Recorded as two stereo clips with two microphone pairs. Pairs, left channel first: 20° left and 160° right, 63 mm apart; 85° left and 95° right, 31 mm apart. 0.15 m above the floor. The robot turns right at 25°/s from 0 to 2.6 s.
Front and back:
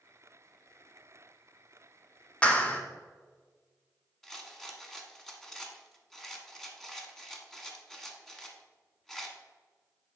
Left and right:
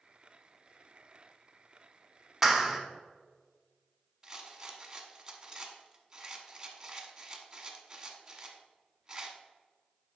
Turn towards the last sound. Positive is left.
turn(degrees=-55)